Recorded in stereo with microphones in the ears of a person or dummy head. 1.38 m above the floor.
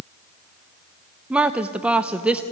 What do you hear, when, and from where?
1.3 s a woman speaking: 5° right (ahead or behind), 0.7 m